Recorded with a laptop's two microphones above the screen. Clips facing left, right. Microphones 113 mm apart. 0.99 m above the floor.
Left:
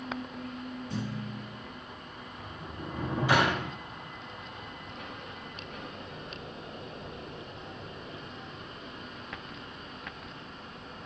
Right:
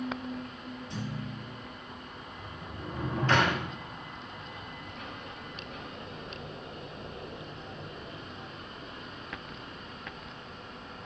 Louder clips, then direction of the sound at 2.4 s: Left 1 dB; 10° left (ahead or behind).